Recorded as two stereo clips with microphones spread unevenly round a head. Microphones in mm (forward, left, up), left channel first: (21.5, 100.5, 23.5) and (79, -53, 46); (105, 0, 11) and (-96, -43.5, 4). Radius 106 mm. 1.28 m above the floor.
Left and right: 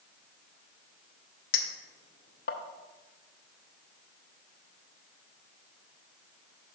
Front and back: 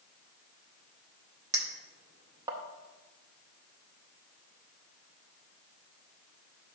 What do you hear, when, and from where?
1.5 s a clink: 120° left, 0.7 m